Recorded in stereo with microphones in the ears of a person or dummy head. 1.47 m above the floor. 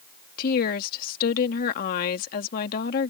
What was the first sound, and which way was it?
A woman speaking, 50° left (ahead or behind).